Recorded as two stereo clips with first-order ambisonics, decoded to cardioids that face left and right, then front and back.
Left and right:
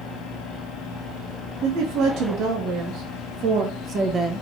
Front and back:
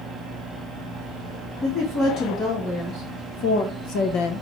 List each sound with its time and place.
1.6 s a woman speaking: 60° right, 3 m; by 4.4 s 10° right, 1.0 m